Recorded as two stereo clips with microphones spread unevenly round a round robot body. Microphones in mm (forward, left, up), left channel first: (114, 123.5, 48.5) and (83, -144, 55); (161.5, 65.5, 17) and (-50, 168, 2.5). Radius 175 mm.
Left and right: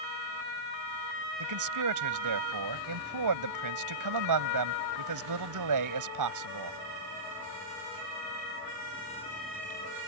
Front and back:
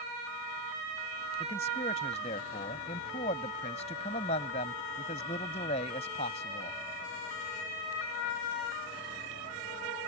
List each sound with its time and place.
1.4 s a man speaking: 100° right